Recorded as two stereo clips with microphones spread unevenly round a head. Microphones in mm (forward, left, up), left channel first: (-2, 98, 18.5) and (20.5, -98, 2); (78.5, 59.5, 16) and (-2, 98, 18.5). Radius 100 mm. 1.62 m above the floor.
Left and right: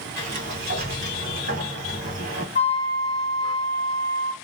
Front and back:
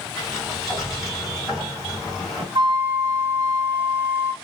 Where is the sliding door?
105° right, 1.7 m.